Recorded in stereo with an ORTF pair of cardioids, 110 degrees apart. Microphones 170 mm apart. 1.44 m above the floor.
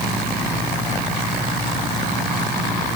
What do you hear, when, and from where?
Only background noise.